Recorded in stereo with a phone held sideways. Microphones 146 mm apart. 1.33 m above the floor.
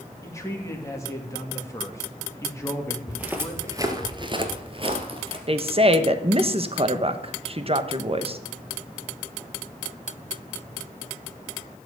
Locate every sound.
0.2 s a man speaking: 20° left (ahead or behind), 2.5 m
3.1 s footsteps: 10° right (ahead or behind), 2 m; by 5.4 s 35° right (ahead or behind), 2 m
5.5 s a woman speaking: 40° right (ahead or behind), 1.2 m